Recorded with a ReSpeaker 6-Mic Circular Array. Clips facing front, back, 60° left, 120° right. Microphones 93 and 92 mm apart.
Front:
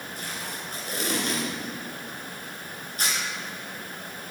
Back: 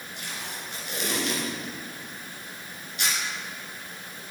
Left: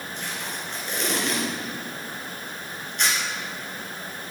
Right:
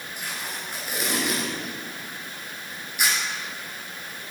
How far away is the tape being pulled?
About 3 m.